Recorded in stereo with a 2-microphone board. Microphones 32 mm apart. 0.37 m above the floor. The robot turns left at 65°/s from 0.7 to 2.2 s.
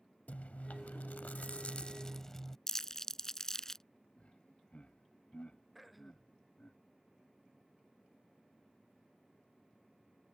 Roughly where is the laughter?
Left.